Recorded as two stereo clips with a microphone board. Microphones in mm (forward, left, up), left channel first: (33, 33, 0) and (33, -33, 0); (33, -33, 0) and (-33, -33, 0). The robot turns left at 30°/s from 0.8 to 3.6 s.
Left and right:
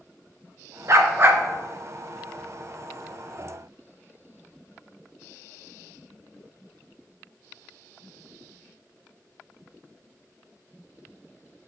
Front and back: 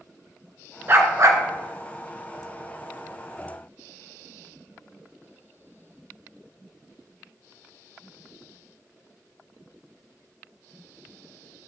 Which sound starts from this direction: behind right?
A dog barking, at 0.9 s.